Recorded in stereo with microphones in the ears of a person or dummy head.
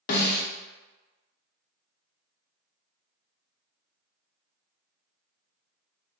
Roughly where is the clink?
I don't hear a clink.